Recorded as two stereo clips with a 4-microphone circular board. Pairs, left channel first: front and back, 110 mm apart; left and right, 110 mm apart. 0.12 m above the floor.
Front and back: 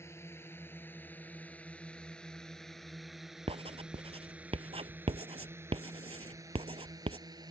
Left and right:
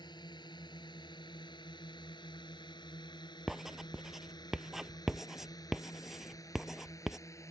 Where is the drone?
60° left; by 7.5 s 145° left.